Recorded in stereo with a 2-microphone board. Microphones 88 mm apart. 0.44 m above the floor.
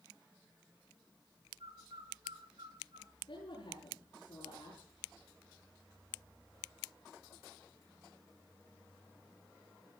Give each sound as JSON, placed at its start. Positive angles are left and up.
{"t": 1.6, "sound": "a bird", "side_deg": -80, "distance_m": 5.0}
{"t": 3.3, "sound": "a woman speaking", "side_deg": 60, "distance_m": 9.0}